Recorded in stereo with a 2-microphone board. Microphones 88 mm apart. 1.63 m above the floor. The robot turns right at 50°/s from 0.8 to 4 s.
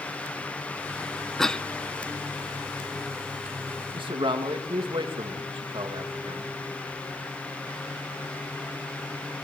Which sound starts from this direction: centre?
A cough, at 1.4 s.